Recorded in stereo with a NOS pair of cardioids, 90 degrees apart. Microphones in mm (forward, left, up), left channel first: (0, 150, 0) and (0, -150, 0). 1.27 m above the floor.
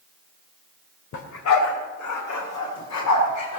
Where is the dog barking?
70° left, 2.5 m; by 3.6 s 65° left, 5.5 m.